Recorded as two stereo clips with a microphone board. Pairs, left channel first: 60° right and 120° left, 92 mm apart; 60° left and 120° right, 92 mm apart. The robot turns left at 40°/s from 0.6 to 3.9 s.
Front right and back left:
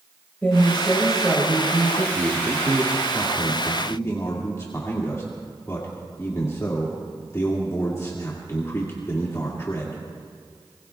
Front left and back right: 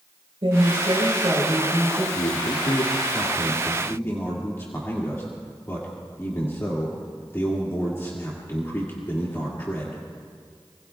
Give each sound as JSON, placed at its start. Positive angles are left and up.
{"t": 0.4, "sound": "a woman speaking", "azimuth_deg": -130, "distance_m": 4.5}
{"t": 2.1, "sound": "a man speaking", "azimuth_deg": 70, "distance_m": 2.0}